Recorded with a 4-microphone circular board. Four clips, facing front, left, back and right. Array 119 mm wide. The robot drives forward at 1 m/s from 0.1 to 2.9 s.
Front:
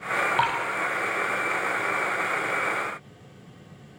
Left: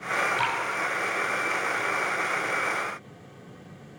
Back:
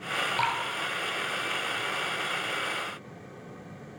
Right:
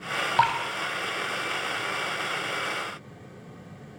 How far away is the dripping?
About 5.5 m.